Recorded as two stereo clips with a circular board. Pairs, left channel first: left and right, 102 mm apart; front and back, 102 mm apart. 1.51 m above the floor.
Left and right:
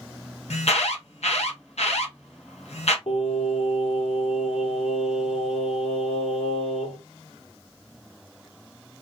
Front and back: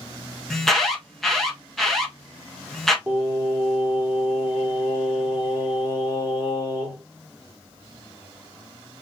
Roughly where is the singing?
Left.